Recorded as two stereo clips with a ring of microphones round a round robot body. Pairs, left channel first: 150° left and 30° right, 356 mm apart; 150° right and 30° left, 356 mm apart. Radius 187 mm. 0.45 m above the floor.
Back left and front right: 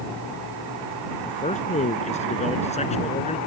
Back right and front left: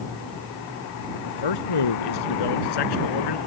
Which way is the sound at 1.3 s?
140° right.